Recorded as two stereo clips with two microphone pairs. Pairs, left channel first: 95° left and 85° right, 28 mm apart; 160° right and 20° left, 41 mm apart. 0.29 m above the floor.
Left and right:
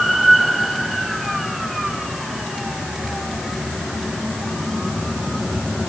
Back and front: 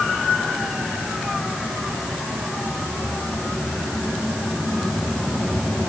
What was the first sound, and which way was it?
Only background noise.